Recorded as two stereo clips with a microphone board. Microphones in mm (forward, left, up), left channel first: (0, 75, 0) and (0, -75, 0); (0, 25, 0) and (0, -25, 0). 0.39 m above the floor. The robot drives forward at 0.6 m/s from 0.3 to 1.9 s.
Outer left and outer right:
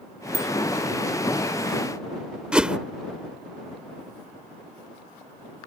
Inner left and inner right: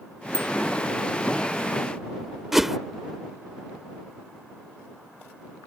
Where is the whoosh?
5° right (ahead or behind).